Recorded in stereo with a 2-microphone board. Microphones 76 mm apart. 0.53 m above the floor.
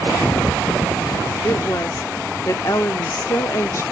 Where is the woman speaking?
40° left (ahead or behind), 1.0 m.